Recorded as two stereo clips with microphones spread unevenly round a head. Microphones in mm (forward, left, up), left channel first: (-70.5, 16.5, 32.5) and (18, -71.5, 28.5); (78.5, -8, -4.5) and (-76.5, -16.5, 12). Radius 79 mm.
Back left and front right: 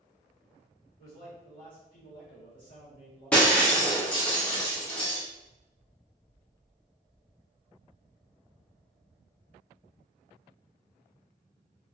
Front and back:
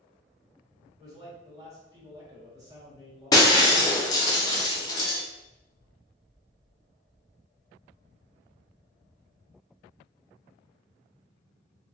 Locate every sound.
1.0 s a man speaking: 115° left, 1.3 m
3.3 s breaking glass: 60° left, 0.5 m